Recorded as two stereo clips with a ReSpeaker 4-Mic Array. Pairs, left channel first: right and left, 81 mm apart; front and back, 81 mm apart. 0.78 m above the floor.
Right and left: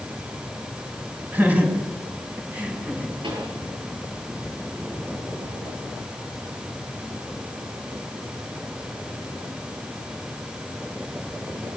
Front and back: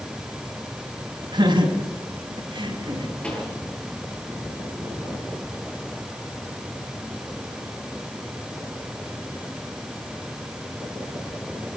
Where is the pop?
75° left, 9.5 m.